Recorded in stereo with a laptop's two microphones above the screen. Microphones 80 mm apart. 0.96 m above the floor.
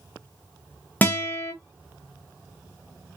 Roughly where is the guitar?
Left.